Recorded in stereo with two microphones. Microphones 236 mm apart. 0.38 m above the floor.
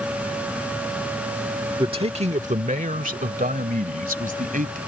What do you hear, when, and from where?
1.8 s a man speaking: 20° right (ahead or behind); by 4.8 s 35° right (ahead or behind)